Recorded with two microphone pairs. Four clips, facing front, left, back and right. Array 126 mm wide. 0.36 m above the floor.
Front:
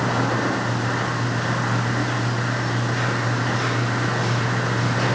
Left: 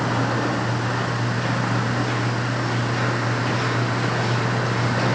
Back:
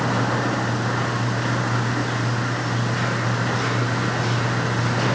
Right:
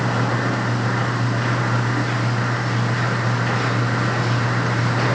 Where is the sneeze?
No sneeze in this recording.